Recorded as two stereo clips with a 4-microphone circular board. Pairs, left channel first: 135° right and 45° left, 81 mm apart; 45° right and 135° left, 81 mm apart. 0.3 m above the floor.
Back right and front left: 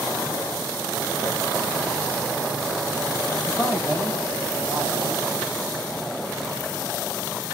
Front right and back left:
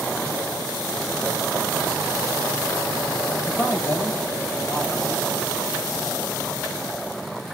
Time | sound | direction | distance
3.5 | a man speaking | 75° right | 1.8 m